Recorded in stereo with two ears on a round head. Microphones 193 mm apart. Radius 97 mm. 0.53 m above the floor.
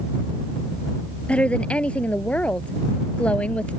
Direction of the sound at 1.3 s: 5° left (ahead or behind).